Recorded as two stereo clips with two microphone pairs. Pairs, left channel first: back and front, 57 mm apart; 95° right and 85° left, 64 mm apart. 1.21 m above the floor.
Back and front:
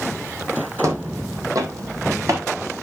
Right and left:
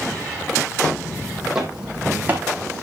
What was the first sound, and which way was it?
Footsteps, 20° right.